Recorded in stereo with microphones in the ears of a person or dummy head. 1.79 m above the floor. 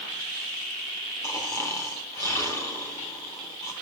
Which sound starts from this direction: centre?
Snoring, at 1.2 s.